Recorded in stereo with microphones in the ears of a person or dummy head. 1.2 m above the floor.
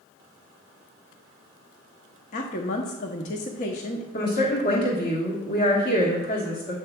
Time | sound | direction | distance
2.3 | a woman speaking | 35° left (ahead or behind) | 0.8 m
4.1 | a woman speaking | 40° left (ahead or behind) | 1.4 m